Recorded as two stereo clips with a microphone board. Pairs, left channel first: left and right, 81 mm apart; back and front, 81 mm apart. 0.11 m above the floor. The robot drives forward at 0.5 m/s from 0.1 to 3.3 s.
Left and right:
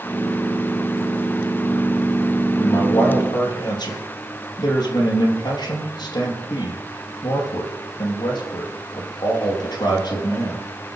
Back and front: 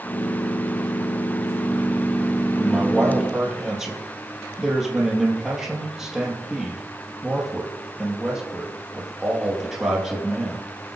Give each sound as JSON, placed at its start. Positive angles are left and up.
{"t": 2.6, "sound": "a man speaking", "azimuth_deg": 80, "distance_m": 3.5}